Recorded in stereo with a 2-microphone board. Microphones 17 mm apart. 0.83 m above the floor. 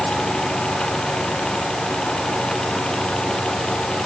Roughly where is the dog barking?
I don't hear a dog barking.